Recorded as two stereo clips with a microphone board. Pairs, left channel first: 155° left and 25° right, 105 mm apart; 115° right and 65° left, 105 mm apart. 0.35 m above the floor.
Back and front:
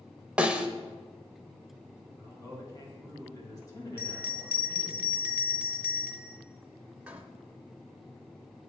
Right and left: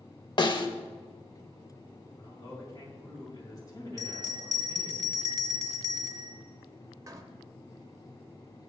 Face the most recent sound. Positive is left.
turn(degrees=45)